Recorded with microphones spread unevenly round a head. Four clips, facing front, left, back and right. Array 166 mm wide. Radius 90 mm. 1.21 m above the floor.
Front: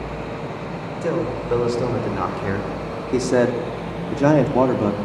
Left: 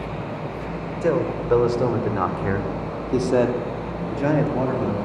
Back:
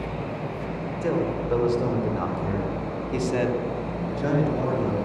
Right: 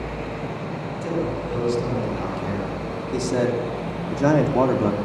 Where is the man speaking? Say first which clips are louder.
Left 5 dB, front 2 dB; 65° left, 5 m; by 4.9 s 25° right, 3 m.